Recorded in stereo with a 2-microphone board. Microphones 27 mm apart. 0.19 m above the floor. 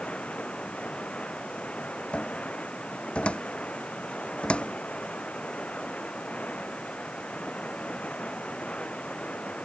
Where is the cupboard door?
50° left (ahead or behind).